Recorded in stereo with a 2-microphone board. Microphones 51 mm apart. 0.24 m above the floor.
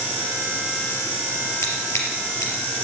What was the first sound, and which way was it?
Scissors, 70° left (ahead or behind).